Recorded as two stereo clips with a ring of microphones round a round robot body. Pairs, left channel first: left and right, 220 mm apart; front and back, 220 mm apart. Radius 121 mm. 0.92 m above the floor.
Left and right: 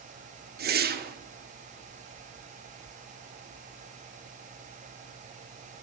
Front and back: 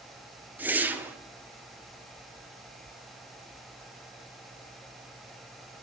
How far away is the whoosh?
About 1.0 m.